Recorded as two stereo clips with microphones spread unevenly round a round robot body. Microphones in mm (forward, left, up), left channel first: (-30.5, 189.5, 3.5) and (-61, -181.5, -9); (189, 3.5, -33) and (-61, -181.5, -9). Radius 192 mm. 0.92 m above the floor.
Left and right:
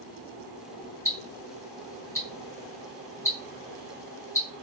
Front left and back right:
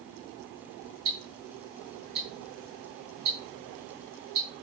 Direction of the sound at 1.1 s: 170° left.